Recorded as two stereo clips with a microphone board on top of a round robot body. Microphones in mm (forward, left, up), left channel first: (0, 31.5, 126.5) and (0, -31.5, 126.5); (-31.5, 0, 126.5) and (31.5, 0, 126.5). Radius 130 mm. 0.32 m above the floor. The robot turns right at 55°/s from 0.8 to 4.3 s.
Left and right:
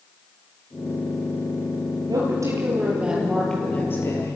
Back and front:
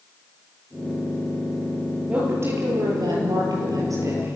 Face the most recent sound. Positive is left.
turn(degrees=55)